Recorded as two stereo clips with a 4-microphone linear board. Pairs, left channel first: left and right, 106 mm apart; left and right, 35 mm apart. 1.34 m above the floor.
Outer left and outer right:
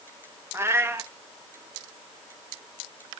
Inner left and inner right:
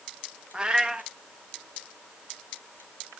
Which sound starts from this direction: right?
A cat meowing, at 0.5 s.